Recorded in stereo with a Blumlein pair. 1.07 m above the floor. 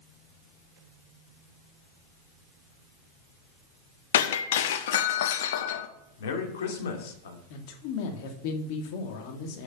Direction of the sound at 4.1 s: 55° left.